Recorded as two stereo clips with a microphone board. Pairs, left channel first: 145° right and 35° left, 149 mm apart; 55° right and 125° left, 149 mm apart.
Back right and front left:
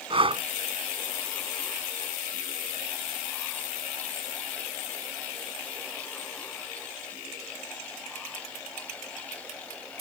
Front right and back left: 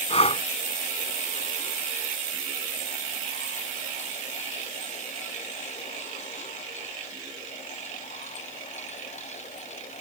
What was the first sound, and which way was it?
Breathing, 15° right.